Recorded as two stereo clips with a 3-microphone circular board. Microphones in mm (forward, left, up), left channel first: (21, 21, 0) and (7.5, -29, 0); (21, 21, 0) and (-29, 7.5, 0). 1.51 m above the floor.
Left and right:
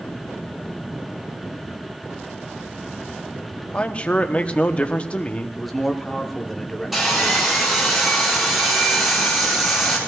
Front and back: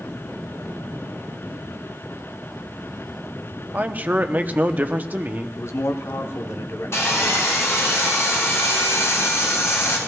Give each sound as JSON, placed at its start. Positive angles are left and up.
{"t": 3.7, "sound": "a man speaking", "azimuth_deg": 140, "distance_m": 0.8}
{"t": 5.6, "sound": "a man speaking", "azimuth_deg": -15, "distance_m": 0.9}
{"t": 6.9, "sound": "sawing", "azimuth_deg": -20, "distance_m": 5.0}